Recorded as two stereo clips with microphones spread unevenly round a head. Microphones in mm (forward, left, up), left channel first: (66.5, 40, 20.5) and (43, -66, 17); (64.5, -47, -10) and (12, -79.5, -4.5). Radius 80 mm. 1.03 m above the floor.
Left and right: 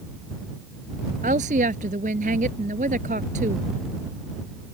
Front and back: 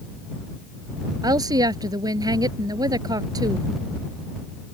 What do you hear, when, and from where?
1.2 s a woman speaking: 145° right